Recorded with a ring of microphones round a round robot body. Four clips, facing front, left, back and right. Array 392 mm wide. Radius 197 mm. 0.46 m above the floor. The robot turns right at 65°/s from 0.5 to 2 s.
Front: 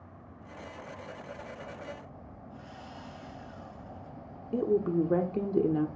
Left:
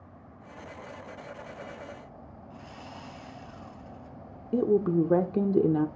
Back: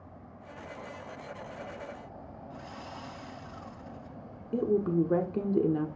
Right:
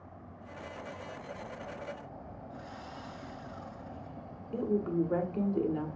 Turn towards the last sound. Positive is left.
turn(degrees=90)